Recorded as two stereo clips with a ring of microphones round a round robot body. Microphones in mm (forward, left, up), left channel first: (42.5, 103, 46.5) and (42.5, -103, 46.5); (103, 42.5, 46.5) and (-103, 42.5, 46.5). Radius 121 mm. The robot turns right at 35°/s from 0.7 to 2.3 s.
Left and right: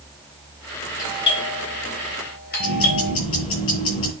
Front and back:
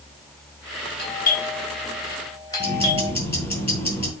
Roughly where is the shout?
I don't hear a shout.